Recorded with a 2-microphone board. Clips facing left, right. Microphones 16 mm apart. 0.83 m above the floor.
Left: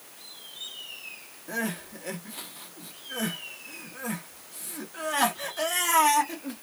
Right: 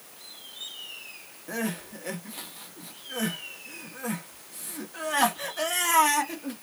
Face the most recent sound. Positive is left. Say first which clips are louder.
# even
turn(degrees=-5)  # may be behind; listen again after turning